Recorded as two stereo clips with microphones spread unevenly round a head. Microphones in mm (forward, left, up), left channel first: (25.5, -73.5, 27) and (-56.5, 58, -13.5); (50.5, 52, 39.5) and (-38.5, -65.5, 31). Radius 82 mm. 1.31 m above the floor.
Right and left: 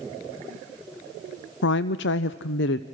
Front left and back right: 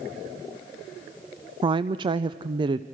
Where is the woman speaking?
70° right, 0.5 m.